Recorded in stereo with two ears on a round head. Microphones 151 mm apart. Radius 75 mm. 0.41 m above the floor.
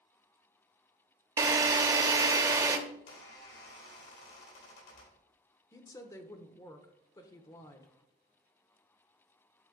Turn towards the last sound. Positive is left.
turn(degrees=20)  # may be behind; listen again after turning